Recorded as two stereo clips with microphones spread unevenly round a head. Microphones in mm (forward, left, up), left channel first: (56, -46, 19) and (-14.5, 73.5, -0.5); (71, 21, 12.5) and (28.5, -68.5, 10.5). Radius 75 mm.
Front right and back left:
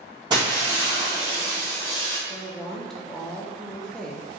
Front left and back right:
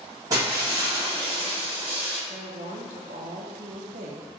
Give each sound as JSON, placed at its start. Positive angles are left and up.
{"t": 0.3, "sound": "breaking glass", "azimuth_deg": -175, "distance_m": 1.7}
{"t": 2.3, "sound": "a woman speaking", "azimuth_deg": -145, "distance_m": 0.5}